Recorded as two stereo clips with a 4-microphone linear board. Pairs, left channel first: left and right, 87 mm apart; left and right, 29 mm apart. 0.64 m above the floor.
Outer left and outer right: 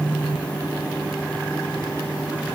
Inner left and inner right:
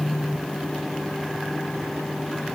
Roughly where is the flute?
I don't hear a flute.